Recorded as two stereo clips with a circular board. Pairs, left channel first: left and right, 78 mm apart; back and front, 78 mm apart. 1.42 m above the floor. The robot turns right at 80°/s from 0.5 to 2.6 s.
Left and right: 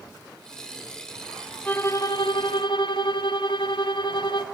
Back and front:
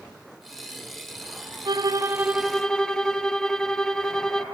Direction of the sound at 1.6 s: 20° left.